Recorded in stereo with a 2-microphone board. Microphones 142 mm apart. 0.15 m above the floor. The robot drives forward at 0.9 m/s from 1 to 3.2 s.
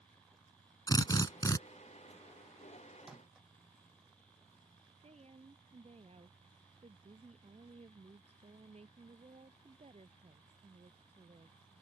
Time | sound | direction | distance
0.9 | a drill | 25° left (ahead or behind) | ?
3.0 | a microwave | 5° right (ahead or behind) | ?
5.0 | a woman speaking | 50° right (ahead or behind) | ?